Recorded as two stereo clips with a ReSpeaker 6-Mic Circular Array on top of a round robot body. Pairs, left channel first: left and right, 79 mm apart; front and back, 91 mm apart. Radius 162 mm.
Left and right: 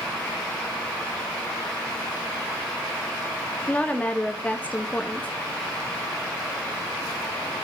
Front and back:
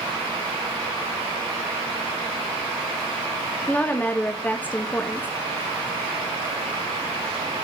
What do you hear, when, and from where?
3.7 s a woman speaking: 45° left, 1.0 m